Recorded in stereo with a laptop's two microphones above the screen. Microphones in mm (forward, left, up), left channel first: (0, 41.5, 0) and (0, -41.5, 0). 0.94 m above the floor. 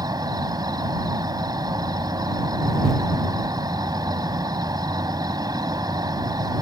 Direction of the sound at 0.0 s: 55° right (ahead or behind).